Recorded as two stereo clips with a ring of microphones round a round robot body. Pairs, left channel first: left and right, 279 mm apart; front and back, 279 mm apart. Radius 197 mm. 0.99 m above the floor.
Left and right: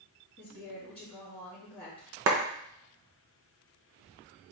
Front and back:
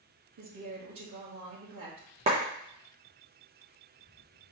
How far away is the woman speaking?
About 1.6 m.